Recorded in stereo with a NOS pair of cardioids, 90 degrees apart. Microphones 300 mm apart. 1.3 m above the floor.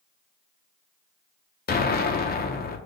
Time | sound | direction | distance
1.7 | an explosion | 35° left | 0.7 m